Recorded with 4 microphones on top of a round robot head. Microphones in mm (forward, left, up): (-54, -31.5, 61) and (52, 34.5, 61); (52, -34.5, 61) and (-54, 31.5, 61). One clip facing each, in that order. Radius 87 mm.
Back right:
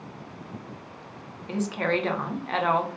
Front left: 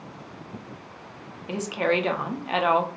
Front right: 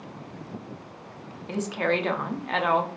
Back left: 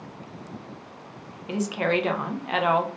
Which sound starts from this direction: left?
A woman speaking, at 1.5 s.